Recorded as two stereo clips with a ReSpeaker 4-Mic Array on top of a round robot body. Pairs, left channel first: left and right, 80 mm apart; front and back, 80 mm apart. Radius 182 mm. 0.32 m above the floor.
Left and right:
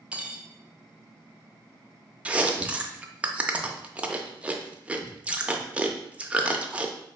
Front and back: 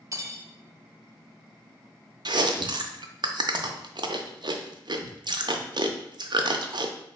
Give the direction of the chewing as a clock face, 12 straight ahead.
5 o'clock.